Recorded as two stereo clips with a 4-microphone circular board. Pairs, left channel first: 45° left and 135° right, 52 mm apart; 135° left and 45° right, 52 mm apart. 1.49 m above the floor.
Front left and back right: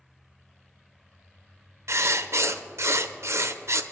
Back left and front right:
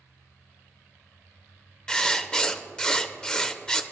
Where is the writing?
150° right, 0.6 m.